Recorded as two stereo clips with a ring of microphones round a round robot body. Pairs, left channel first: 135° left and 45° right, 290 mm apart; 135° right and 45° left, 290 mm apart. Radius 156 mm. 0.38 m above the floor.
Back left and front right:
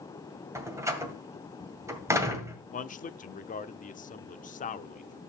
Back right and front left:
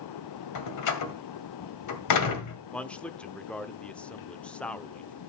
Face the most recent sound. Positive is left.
turn(degrees=145)